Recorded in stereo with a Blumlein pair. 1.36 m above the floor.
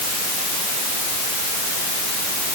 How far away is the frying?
I don't hear frying.